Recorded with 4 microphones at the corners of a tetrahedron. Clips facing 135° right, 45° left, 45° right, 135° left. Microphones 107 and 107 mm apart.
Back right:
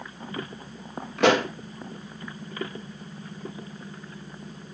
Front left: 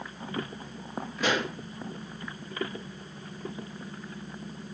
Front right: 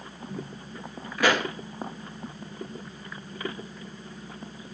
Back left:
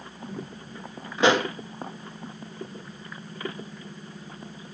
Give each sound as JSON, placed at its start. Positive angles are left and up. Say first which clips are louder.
{"t": 1.2, "sound": "a pop", "louder": "back right 9 dB, back left 3 dB", "azimuth_deg": -155, "distance_m": 2.0}